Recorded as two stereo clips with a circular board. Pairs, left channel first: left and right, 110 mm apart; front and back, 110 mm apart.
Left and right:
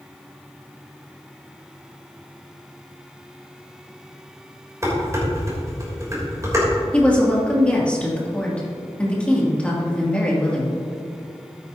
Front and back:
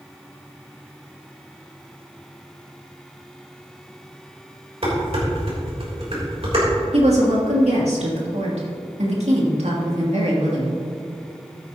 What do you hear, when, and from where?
4.8 s dishes clattering: 150° right, 3.5 m
6.9 s a woman speaking: 170° left, 2.5 m